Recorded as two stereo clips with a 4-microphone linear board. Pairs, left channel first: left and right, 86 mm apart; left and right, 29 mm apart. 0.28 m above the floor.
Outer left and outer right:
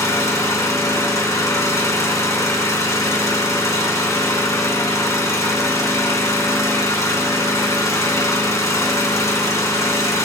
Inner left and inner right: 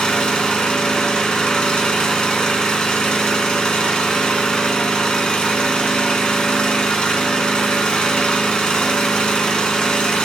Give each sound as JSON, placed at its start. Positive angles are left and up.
{"t": 0.0, "sound": "an engine running", "side_deg": 35, "distance_m": 2.5}